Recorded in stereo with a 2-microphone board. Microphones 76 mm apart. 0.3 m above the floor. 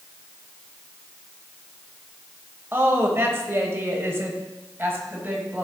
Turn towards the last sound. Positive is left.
turn(degrees=-25)  # may be behind; listen again after turning